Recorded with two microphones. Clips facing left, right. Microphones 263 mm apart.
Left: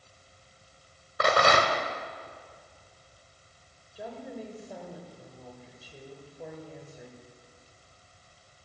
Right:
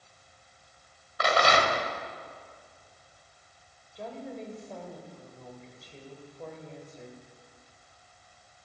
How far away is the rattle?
About 1.4 m.